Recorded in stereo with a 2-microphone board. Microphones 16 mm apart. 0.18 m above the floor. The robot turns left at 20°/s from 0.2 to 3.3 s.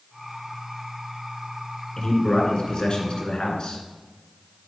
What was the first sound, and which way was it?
A man speaking, 45° left (ahead or behind).